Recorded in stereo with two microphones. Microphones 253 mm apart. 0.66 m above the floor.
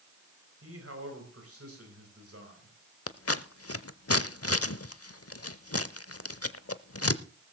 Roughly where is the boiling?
I don't hear boiling.